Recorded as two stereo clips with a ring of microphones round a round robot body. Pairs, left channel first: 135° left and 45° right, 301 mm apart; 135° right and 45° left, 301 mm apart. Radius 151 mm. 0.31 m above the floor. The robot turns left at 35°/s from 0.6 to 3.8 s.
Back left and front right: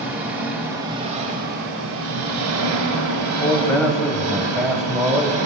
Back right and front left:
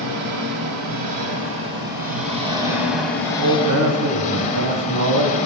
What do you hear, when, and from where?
0.0 s an engine running: 40° left, 2 m; by 5.5 s 75° right, 2 m
3.2 s a man speaking: 70° left, 1.5 m; by 5.4 s 45° left, 1.5 m